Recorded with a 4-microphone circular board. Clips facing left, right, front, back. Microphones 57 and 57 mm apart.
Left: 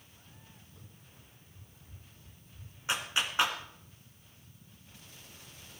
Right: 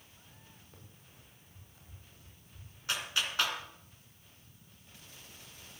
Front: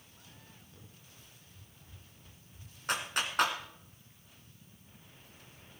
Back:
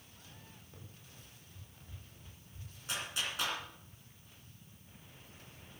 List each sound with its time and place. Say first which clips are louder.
0.7 s running footsteps: left 1 dB, back 1 dB; 120° right, 7 m; by 2.7 s 110° right, 7 m
2.9 s a clap: left 2 dB, front 5 dB; 25° left, 2 m